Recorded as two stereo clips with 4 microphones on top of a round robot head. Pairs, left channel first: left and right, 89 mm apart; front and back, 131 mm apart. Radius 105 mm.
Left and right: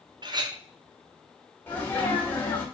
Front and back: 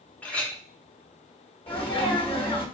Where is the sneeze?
30° left, 1.8 m.